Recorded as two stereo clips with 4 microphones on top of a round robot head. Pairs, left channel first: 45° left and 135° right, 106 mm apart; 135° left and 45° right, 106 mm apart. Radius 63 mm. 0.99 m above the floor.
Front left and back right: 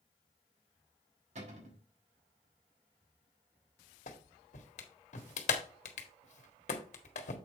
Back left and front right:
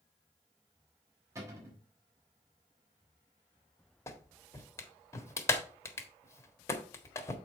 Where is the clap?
70° left, 1.6 m.